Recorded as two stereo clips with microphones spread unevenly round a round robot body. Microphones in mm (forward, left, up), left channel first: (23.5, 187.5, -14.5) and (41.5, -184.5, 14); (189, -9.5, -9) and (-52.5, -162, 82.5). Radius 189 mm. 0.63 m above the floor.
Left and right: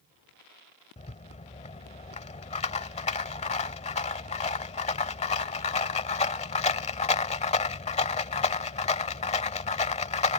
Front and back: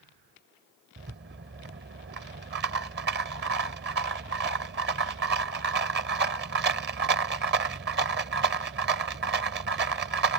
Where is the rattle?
165° left.